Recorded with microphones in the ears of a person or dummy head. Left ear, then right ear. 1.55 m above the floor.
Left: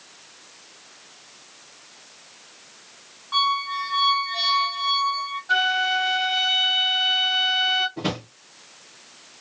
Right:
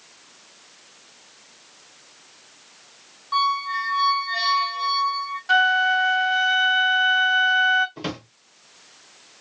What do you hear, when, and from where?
3.3 s a squeak: 5° right (ahead or behind), 0.9 m
5.5 s a flute: 45° right (ahead or behind), 1.0 m
8.0 s a drawer: 30° right (ahead or behind), 0.7 m